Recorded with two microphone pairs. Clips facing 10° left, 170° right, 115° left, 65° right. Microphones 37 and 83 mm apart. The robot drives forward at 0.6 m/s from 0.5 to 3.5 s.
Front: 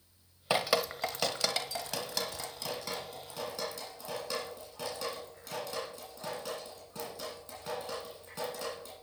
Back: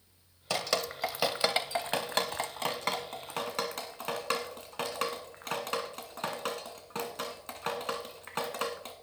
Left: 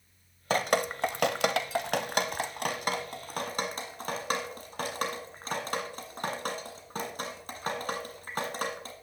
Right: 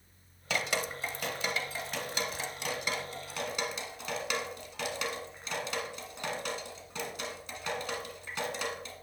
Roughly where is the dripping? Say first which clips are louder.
Front 2 dB, left 6 dB; left.